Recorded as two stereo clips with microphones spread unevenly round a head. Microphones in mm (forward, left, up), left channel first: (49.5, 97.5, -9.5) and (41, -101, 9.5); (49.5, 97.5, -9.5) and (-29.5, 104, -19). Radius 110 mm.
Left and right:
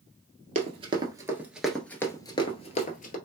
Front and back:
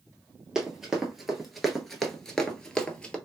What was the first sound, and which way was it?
Running footsteps, 90° right.